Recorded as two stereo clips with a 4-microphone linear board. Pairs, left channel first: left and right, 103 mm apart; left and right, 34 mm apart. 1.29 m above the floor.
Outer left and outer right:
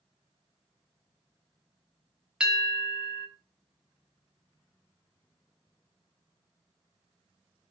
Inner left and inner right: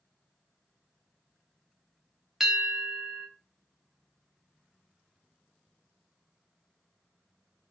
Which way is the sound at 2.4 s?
10° right (ahead or behind).